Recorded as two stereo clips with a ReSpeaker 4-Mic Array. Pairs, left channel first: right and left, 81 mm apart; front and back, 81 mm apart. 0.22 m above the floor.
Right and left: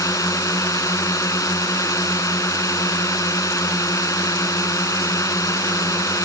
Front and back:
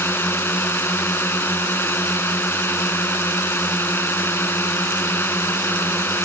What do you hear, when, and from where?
0.0 s a drone: 55° right